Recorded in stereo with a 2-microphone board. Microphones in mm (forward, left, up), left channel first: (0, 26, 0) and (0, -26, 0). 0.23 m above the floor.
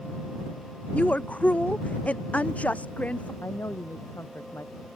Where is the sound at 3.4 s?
60° left (ahead or behind).